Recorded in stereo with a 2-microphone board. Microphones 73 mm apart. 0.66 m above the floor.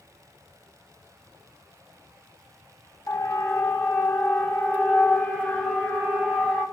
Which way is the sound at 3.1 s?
45° left (ahead or behind).